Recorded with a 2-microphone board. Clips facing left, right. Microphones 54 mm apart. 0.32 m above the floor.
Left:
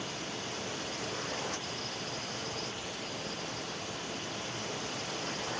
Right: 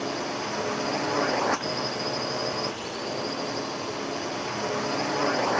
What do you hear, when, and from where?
0.0 s a drone: 70° right (ahead or behind)